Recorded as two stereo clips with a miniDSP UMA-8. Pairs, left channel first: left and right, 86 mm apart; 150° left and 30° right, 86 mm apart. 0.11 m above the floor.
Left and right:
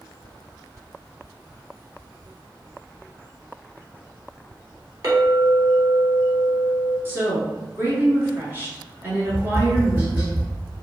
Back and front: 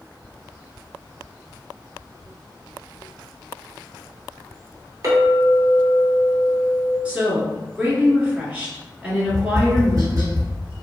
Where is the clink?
60° right, 1.5 m.